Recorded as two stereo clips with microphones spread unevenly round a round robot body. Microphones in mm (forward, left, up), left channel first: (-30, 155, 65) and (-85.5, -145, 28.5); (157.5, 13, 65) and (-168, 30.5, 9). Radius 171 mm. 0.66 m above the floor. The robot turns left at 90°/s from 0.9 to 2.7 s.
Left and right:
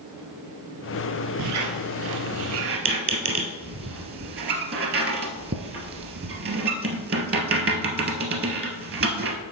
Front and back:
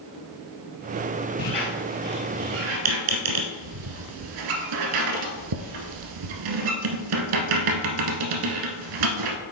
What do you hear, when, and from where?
1.4 s a squeak: 40° right, 1.2 m; by 9.4 s 160° right, 1.2 m